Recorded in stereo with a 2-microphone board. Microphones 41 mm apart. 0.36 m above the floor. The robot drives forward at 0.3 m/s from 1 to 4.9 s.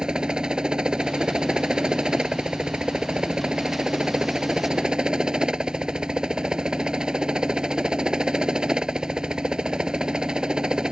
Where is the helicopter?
20° right (ahead or behind).